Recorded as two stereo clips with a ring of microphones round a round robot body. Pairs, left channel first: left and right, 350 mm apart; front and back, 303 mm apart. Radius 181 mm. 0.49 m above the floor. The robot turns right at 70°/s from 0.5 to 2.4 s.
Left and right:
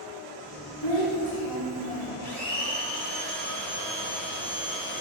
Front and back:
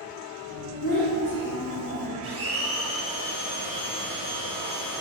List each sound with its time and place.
0.8 s a child speaking: 120° right, 1.6 m; by 2.1 s 30° right, 1.6 m
2.2 s a blender: 160° left, 1.3 m; by 5.0 s 170° left, 1.3 m